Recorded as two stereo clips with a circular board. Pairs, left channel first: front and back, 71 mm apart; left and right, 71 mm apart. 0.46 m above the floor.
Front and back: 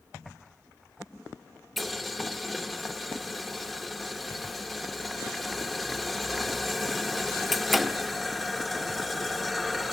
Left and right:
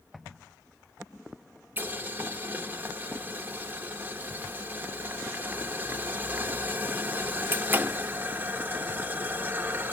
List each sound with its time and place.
1.8 s boiling: 90° right, 1.0 m